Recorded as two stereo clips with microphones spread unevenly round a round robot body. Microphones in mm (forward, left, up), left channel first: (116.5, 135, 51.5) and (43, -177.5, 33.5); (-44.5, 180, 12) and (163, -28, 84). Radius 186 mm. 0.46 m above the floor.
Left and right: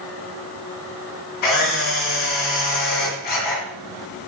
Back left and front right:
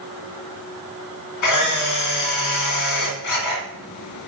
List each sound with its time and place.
1.4 s a camera shutter: 115° left, 1.7 m